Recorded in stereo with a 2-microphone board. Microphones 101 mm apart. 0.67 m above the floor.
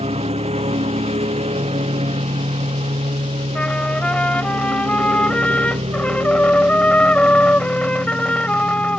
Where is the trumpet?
15° left (ahead or behind).